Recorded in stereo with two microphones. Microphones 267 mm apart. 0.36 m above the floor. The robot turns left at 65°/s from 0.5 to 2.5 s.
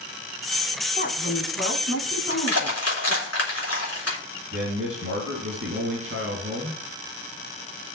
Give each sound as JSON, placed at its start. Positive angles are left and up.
{"t": 1.0, "sound": "a woman speaking", "azimuth_deg": 145, "distance_m": 2.5}
{"t": 2.3, "sound": "crushing", "side_deg": 75, "distance_m": 4.0}
{"t": 4.5, "sound": "a man speaking", "side_deg": -55, "distance_m": 4.0}